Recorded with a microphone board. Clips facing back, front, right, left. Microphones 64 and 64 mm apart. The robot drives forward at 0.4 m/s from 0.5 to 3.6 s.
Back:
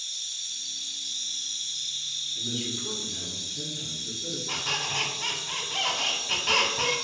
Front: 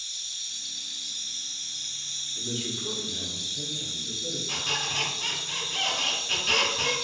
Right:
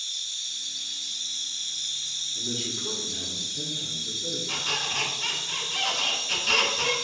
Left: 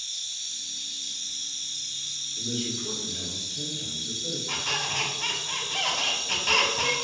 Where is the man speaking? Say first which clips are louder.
Even, left 2 dB; 95° right, 1.0 m; by 4.4 s 135° right, 1.2 m.